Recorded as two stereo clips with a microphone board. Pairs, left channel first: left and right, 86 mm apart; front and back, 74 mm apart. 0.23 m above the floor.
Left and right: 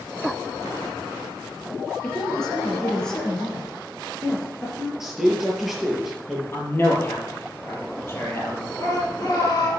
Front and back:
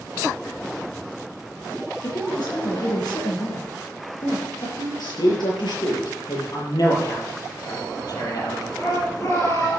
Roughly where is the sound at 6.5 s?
Ahead left.